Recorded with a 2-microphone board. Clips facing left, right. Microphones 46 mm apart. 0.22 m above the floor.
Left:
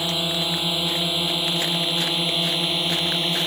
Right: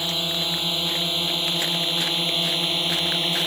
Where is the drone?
10° left (ahead or behind); by 3.5 s centre (ahead or behind).